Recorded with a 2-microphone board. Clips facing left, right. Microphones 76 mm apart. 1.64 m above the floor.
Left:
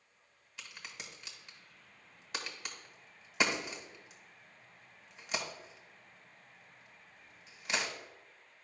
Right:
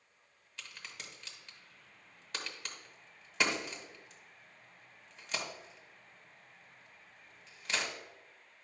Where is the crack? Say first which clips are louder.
Even; 10° left (ahead or behind), 1.5 m.